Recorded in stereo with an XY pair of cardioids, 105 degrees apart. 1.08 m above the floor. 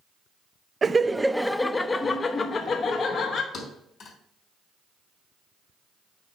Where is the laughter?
30° right, 0.5 m; by 3.4 s 55° left, 1.3 m.